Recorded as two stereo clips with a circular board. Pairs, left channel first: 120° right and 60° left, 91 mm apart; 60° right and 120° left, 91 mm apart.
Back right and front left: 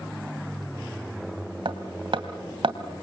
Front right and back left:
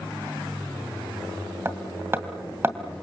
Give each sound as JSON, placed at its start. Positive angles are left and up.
{"t": 1.6, "sound": "hammering", "azimuth_deg": 60, "distance_m": 2.0}